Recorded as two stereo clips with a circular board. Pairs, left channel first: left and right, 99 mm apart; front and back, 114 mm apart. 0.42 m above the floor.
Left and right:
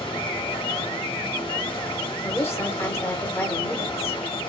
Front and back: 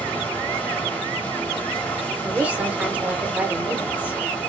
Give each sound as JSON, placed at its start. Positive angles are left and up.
{"t": 0.0, "sound": "running water", "azimuth_deg": 70, "distance_m": 1.2}
{"t": 2.2, "sound": "a woman speaking", "azimuth_deg": 115, "distance_m": 0.8}